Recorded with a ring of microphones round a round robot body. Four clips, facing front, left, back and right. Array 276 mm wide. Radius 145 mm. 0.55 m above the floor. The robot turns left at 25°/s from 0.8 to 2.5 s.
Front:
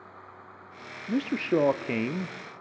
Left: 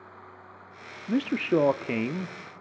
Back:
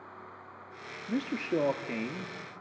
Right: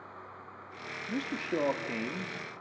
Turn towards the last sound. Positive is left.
turn(degrees=35)